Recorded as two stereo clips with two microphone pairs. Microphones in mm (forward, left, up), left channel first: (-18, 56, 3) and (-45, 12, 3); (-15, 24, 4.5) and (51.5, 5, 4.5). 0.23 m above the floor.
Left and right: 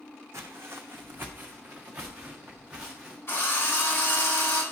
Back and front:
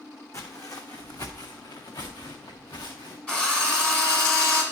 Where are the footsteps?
155° right, 1.0 m; by 3.2 s 160° left, 2 m.